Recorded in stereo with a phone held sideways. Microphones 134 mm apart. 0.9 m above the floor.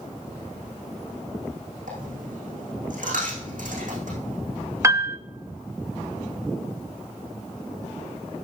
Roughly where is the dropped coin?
Right.